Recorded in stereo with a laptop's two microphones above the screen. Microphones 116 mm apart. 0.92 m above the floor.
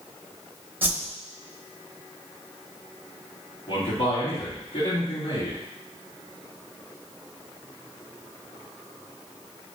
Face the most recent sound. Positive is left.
turn(degrees=50)  # may be behind; listen again after turning